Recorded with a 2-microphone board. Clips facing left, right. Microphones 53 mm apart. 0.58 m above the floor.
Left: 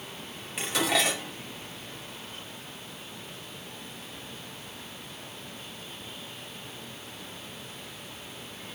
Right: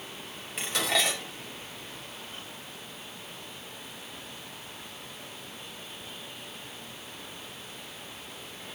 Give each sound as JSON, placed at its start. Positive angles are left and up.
{"t": 0.6, "sound": "dishes clattering", "side_deg": 0, "distance_m": 2.0}